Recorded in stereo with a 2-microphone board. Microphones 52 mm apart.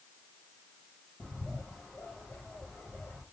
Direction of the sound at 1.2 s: 15° left (ahead or behind).